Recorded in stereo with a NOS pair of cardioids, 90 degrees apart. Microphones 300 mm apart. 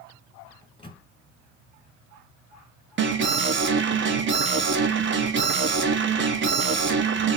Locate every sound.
0.6 s a microwave: 15° left, 1.2 m
3.0 s an alarm: 40° right, 1.0 m